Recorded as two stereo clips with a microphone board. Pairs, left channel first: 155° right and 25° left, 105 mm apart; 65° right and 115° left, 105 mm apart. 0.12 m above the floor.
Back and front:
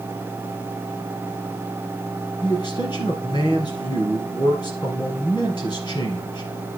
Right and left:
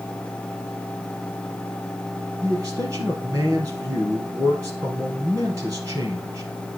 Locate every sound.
2.4 s a man speaking: 170° left, 3.5 m